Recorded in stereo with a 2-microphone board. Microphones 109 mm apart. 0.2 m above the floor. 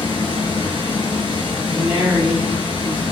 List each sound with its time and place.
0.0 s running water: 50° left (ahead or behind), 0.9 m
1.7 s a woman speaking: 15° right (ahead or behind), 1.5 m